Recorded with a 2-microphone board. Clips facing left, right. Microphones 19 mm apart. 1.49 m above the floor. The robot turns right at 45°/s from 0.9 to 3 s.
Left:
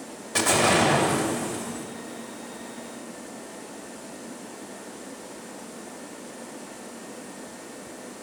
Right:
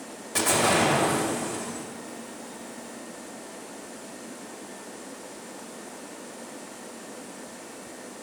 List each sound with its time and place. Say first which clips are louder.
0.3 s an explosion: left 2 dB; 165° left, 1.9 m; by 1.9 s 155° right, 1.9 m